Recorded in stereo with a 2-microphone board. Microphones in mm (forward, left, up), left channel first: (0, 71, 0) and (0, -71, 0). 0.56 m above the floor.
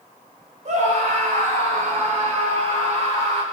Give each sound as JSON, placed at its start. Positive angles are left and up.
{"t": 0.7, "sound": "a scream", "side_deg": -70, "distance_m": 3.5}